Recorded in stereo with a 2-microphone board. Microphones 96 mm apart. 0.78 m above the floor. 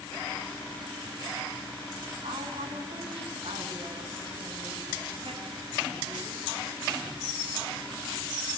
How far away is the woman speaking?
About 8 m.